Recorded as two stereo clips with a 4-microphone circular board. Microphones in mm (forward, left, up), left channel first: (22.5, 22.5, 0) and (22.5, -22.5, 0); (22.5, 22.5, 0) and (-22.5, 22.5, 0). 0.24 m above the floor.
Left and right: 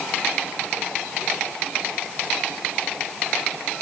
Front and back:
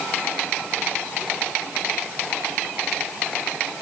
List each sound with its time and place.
Only background noise.